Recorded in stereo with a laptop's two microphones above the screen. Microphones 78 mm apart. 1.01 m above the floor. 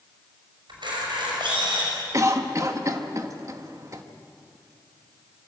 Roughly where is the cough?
Right.